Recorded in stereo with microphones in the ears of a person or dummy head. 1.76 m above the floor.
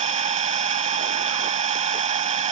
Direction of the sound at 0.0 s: 30° right (ahead or behind).